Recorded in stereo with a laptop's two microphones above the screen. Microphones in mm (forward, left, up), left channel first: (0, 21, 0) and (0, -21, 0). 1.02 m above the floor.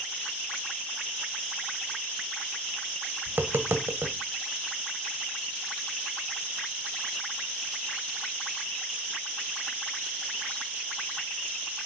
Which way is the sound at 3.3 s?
65° right (ahead or behind).